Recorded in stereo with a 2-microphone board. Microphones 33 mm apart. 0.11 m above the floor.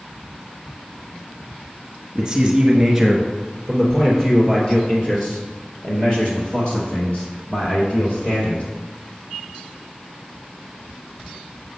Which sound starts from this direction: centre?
A man speaking, at 2.1 s.